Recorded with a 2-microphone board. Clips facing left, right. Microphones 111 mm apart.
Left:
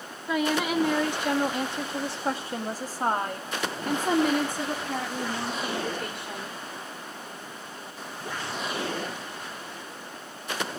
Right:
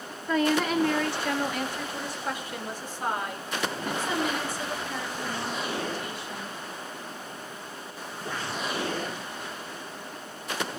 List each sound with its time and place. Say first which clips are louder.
0.3 s a woman speaking: right 1 dB; 5° left (ahead or behind), 2.5 m; by 6.6 s 65° left (ahead or behind), 4.5 m